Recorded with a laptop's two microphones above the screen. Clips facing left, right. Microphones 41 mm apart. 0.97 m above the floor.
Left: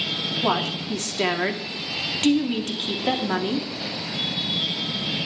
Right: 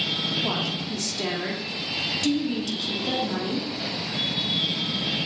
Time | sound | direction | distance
0.4 | a woman speaking | 45° left (ahead or behind) | 2 m